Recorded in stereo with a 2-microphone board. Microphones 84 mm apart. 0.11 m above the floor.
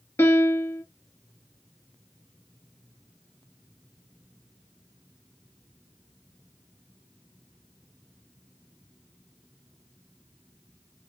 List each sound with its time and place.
0.2 s a piano: 30° left (ahead or behind), 0.9 m